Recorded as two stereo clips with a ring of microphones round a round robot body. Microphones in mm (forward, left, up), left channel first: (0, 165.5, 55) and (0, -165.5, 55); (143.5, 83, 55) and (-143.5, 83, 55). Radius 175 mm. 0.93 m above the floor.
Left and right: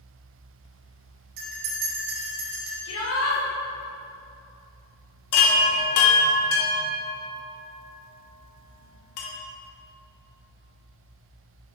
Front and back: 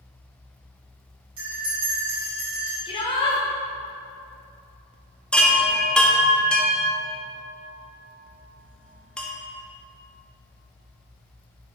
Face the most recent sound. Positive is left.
turn(degrees=85)